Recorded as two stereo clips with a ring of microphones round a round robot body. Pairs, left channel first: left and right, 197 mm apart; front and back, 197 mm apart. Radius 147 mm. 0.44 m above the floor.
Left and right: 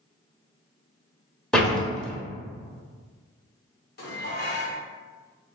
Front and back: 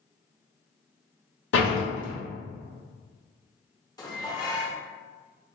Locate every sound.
1.5 s a door slam: 5° left, 1.2 m
4.0 s dishes clattering: 70° left, 1.1 m